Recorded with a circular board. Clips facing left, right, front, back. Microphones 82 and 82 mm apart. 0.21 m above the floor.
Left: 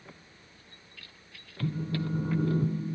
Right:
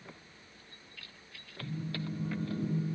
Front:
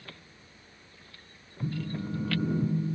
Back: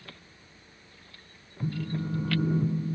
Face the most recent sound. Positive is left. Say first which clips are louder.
# left 6 dB, back 2 dB
turn(degrees=105)